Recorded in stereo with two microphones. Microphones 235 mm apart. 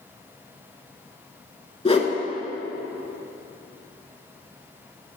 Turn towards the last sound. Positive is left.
turn(degrees=25)  # may be behind; listen again after turning